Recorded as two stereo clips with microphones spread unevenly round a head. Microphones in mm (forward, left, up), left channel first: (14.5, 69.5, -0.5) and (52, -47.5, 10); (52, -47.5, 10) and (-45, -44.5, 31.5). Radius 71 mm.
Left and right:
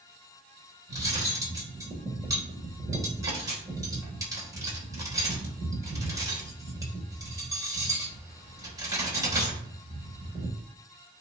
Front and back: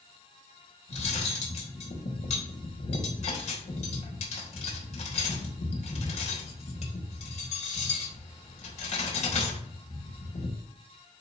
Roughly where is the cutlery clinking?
Ahead.